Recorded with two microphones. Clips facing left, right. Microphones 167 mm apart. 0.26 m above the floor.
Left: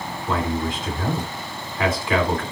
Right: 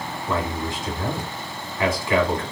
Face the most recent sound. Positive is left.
turn(degrees=25)  # may be behind; listen again after turning